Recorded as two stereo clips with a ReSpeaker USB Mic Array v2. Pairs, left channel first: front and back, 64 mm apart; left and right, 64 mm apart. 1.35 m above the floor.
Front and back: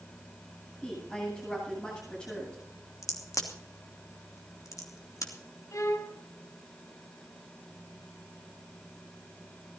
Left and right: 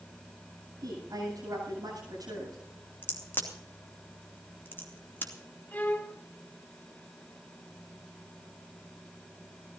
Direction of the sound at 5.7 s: 30° left.